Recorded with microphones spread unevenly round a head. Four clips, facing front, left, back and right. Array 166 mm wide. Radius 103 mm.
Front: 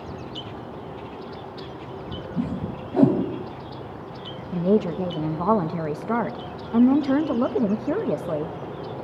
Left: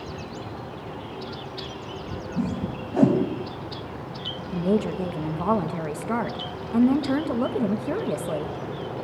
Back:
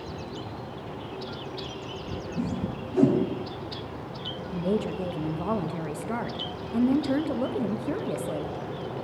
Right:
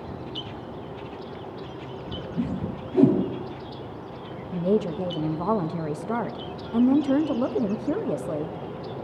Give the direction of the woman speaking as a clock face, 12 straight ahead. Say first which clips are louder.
Even, front 7 dB; 11 o'clock.